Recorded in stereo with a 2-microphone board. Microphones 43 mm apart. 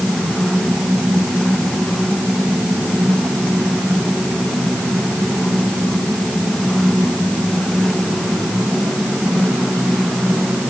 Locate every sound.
Only background noise.